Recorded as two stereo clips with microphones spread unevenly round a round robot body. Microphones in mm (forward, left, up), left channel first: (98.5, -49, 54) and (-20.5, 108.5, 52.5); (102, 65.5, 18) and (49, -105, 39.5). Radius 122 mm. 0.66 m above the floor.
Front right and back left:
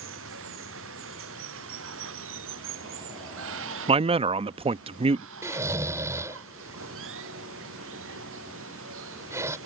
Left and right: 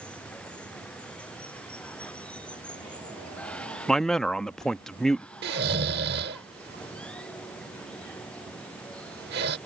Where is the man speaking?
145° left.